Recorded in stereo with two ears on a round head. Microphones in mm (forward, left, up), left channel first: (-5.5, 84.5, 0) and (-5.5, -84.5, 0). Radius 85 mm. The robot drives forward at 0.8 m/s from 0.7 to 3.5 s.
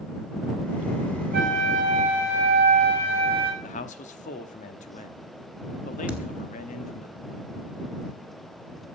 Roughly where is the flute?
Right.